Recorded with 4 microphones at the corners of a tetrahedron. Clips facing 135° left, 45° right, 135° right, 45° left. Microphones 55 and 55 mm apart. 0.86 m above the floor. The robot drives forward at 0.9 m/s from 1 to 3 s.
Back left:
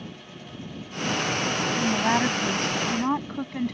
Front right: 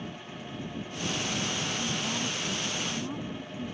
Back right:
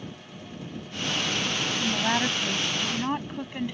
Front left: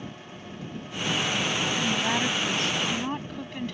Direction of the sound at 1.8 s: 145° left.